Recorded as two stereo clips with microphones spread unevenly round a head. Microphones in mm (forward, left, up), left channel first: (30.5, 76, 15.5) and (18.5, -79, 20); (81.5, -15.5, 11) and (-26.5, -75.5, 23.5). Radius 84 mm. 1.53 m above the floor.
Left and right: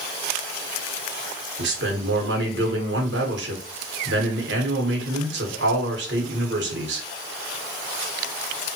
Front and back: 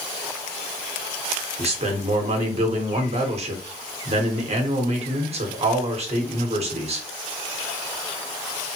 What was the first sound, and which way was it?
A man speaking, 115° right.